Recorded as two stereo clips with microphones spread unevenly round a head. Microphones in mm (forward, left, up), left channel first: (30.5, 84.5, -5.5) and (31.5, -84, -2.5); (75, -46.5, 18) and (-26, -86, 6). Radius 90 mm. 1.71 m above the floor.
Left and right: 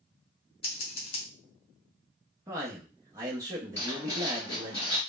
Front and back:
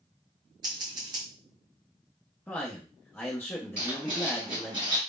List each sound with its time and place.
0.6 s scissors: 140° left, 0.8 m
2.5 s a man speaking: 30° right, 0.7 m
3.8 s writing: 160° left, 1.7 m